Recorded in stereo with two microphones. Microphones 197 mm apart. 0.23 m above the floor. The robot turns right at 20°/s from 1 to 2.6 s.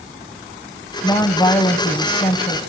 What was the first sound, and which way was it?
A woman speaking, 30° left.